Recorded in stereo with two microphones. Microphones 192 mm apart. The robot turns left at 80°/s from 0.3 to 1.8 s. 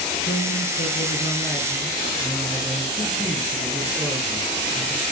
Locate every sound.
0.2 s a man speaking: 115° left, 9 m; by 5.0 s 5° right, 9 m